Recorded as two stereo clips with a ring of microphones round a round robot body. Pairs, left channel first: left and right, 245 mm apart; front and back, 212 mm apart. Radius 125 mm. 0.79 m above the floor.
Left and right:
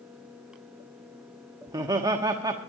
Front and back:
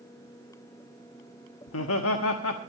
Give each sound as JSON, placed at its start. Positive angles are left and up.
{"t": 1.7, "sound": "laughter", "azimuth_deg": -15, "distance_m": 1.2}